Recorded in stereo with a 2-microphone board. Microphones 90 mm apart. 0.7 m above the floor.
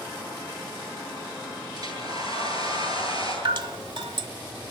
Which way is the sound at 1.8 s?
45° right (ahead or behind).